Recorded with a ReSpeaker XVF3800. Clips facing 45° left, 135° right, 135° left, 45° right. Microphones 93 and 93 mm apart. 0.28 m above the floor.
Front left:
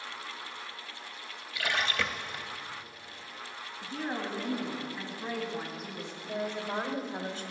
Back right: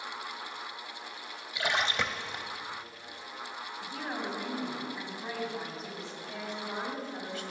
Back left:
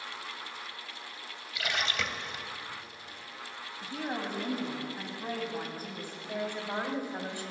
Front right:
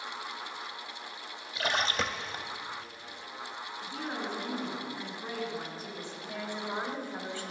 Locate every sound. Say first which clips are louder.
1.6 s a splash: back right 1 dB, front right 3 dB; 80° right, 0.6 m
3.8 s a woman speaking: front left 2 dB, back left 2 dB; 135° left, 2 m
6.2 s a woman speaking: front left 6 dB, back left 3 dB; 75° left, 1.3 m